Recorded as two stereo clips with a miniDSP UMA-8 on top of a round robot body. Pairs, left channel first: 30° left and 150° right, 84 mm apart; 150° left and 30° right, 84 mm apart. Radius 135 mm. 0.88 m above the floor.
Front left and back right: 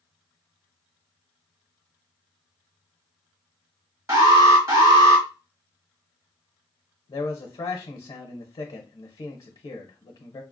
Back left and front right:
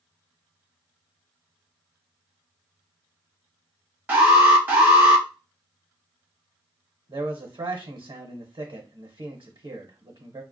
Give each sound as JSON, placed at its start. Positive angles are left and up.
{"t": 4.1, "sound": "an alarm", "azimuth_deg": -100, "distance_m": 1.4}
{"t": 7.1, "sound": "a man speaking", "azimuth_deg": -5, "distance_m": 0.7}